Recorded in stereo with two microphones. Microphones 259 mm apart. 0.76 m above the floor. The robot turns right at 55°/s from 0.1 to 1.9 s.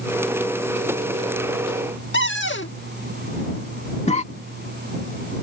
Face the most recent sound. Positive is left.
turn(degrees=25)  # may be behind; listen again after turning